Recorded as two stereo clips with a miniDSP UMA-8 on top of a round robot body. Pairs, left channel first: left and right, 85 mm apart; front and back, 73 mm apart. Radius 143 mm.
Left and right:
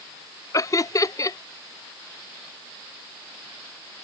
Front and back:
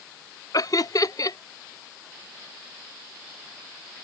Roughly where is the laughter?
Ahead left.